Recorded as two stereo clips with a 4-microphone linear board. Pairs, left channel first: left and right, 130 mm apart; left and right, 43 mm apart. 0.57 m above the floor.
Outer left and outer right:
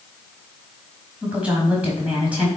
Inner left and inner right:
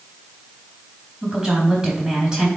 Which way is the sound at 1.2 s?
10° right (ahead or behind).